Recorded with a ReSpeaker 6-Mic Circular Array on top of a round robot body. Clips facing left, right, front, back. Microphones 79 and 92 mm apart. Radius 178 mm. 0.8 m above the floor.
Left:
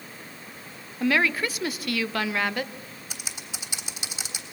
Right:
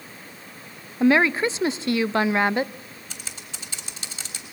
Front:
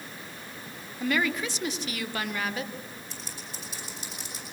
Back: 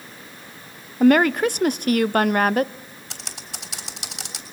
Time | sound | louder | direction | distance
1.0 | a woman speaking | right 5 dB, back 12 dB | 150° right | 0.7 m
3.1 | typing on a keyboard | left 2 dB, back 2 dB | 170° left | 3.5 m